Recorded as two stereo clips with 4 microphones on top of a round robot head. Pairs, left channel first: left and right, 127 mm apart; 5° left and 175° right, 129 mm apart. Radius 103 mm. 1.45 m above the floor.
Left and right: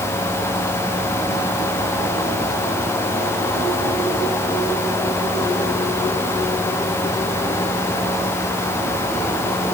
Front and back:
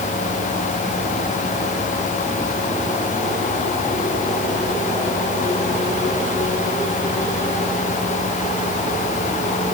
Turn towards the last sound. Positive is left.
No sound to turn to.